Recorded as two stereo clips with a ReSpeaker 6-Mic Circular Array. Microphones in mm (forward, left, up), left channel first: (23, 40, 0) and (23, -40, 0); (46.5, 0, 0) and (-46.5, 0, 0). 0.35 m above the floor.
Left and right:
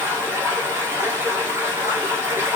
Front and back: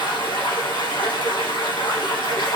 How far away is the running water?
About 2 m.